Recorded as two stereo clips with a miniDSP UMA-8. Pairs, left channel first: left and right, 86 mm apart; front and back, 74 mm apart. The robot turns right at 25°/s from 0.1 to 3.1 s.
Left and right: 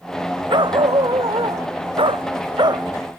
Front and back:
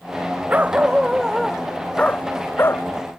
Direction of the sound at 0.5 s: 115° right.